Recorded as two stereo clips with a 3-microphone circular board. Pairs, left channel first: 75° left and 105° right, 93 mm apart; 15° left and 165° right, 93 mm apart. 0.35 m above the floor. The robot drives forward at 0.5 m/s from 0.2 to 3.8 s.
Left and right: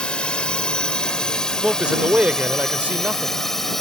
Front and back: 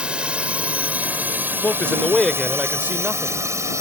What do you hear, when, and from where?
0.0 s a drone: 135° left; by 3.8 s 160° left
1.6 s a man speaking: 35° right; by 3.4 s 150° right